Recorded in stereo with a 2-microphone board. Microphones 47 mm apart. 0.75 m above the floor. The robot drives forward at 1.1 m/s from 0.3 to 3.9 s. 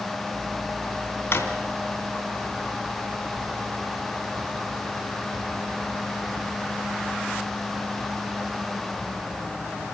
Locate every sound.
1.3 s a drawer: 60° left (ahead or behind), 2.5 m; by 1.5 s 65° left (ahead or behind), 2 m